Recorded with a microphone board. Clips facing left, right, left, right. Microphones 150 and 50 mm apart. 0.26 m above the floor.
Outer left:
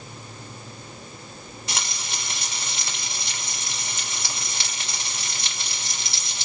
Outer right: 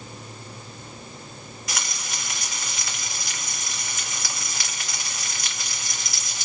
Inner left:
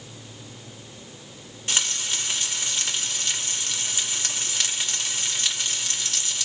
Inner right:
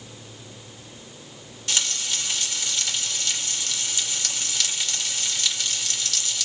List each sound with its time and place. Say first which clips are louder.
1.7 s frying: outer left 1 dB, even; 30° left (ahead or behind), 1.8 m